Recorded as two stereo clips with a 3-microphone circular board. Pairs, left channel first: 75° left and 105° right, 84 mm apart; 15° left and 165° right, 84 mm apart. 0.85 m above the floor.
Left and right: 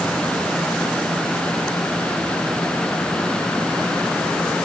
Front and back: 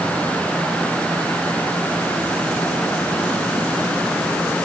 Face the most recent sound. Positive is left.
No sound to turn to.